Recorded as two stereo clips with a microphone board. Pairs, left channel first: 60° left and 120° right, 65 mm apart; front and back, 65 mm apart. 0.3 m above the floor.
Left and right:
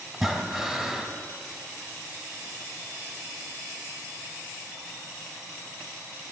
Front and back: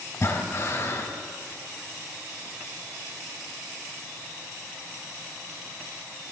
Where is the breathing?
45° right, 2 m.